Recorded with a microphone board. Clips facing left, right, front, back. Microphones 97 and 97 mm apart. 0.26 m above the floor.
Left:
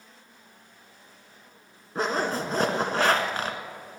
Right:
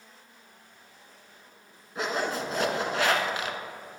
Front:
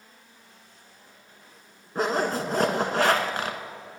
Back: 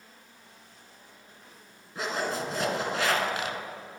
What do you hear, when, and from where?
1.9 s a zipper: 40° left, 1.2 m